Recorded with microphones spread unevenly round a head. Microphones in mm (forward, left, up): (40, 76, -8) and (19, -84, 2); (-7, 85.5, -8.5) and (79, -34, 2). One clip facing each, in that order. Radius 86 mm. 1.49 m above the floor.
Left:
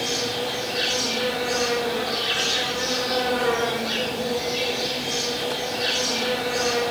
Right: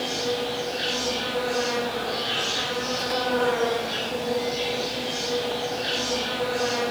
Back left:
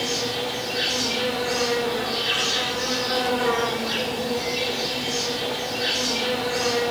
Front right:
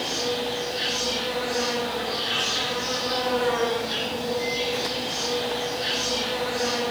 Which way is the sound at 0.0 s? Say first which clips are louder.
Even, even; 110° left.